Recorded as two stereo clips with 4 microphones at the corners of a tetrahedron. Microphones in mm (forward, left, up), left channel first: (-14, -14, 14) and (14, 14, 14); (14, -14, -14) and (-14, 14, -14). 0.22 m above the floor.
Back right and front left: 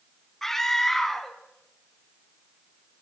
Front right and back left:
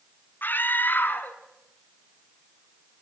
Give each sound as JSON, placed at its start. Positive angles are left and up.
{"t": 0.4, "sound": "a scream", "azimuth_deg": -55, "distance_m": 2.0}